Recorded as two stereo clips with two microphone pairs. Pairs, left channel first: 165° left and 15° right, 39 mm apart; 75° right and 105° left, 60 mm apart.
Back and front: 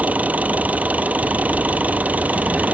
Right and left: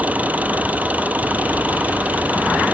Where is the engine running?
40° left.